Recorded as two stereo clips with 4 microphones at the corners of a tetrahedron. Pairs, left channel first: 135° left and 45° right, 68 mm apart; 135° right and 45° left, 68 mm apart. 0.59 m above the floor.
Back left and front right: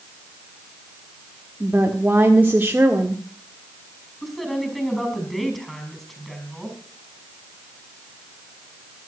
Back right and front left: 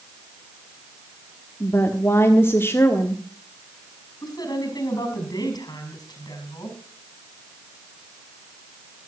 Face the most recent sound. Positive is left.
turn(degrees=-140)